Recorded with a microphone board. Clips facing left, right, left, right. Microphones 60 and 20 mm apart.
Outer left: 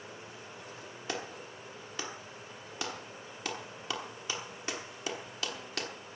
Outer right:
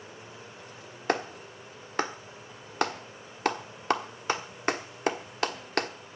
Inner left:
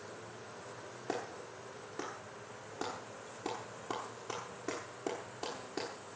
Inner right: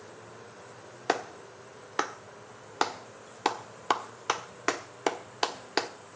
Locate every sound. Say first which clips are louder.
1.1 s a clap: outer right 10 dB, inner right 10 dB; 55° right (ahead or behind), 1.1 m